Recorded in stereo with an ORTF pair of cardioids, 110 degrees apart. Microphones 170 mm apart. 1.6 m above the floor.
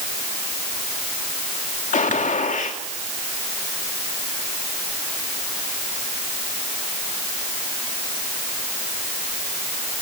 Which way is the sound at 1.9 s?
50° left.